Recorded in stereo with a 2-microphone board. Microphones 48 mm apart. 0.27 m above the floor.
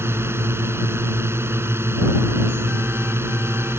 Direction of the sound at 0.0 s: 60° right (ahead or behind).